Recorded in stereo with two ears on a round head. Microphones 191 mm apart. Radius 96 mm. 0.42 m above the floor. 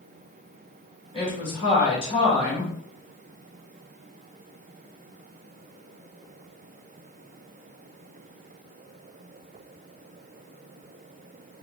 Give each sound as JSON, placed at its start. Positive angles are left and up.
{"t": 1.1, "sound": "a woman speaking", "side_deg": 25, "distance_m": 1.5}